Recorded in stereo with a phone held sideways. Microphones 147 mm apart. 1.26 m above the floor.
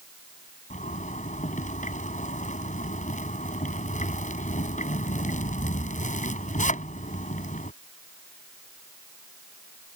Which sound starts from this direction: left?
A zipper, at 0.7 s.